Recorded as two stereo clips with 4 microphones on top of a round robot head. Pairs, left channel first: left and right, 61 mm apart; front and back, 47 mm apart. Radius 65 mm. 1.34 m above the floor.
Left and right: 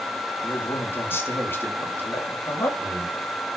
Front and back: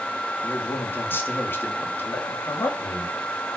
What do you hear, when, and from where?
0.4 s a man speaking: 40° left, 3 m